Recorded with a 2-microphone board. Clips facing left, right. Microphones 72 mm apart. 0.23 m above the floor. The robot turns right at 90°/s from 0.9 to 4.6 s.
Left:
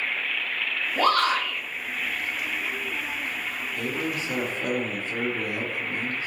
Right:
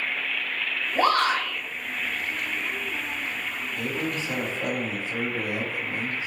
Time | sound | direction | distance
0.9 | a shout | 130° right | 1.9 m
3.8 | a man speaking | 20° right (ahead or behind) | 1.2 m